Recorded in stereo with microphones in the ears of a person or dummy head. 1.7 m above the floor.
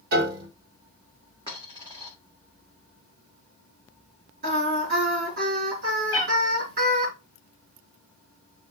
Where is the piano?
60° right (ahead or behind), 2 m.